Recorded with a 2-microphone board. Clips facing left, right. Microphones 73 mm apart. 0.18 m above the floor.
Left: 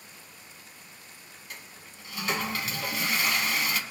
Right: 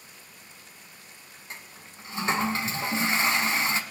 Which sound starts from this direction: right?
A toilet flushing, at 1.5 s.